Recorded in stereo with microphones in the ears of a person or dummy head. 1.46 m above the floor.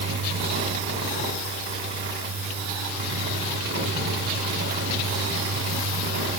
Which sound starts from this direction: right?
A fan, at 0.0 s.